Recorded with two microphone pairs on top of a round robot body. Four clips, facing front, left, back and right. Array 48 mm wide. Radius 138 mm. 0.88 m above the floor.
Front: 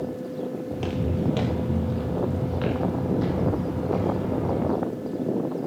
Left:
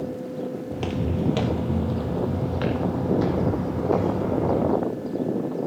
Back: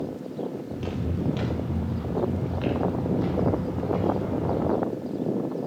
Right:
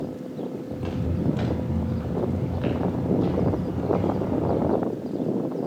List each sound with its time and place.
0.7 s footsteps: 60° left, 1.3 m; by 4.8 s 75° left, 3.5 m